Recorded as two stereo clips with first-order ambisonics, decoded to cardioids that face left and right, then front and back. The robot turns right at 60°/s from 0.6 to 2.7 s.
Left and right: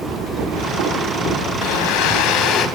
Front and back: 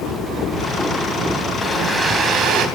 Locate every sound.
1.6 s a blender: 80° left, 4 m; by 2.7 s 140° left, 4 m